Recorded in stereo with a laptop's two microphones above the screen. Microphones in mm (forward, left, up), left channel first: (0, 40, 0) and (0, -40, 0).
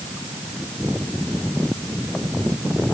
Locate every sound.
Only background noise.